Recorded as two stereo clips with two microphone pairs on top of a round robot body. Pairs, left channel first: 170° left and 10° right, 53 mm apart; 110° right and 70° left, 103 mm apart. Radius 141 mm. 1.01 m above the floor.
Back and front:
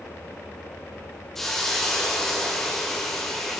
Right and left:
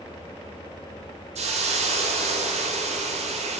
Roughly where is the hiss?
Left.